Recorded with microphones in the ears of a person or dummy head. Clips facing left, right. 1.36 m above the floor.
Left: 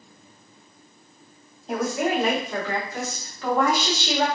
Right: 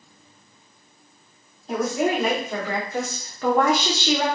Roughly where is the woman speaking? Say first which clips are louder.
Right 2 dB; centre.